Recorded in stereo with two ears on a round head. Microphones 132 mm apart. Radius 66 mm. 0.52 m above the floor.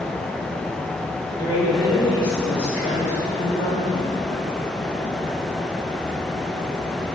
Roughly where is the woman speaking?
Left.